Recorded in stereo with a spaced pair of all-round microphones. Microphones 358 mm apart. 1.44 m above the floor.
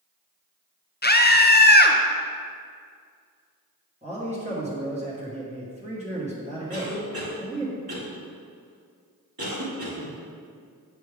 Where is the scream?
25° left (ahead or behind), 0.7 m.